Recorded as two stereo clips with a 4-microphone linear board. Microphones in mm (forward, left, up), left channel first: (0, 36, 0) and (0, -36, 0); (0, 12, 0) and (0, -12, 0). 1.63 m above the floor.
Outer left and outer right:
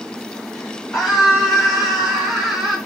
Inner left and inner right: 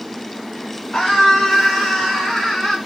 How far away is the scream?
About 6 m.